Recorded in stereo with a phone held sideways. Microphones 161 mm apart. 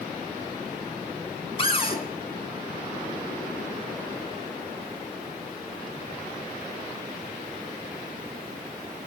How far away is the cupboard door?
About 4 m.